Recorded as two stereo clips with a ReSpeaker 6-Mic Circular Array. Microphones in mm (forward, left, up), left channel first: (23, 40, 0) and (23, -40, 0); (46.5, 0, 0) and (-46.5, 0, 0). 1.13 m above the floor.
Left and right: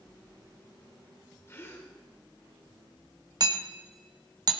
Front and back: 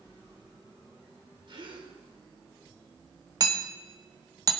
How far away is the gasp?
About 2.5 m.